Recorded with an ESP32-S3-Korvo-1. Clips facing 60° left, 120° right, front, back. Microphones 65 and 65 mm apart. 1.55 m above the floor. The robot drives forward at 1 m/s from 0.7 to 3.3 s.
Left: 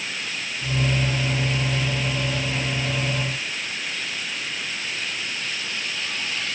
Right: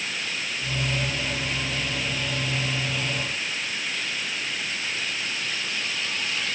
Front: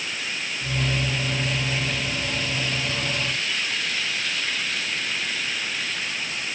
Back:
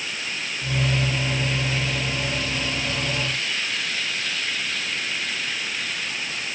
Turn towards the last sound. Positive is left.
No sound to turn to.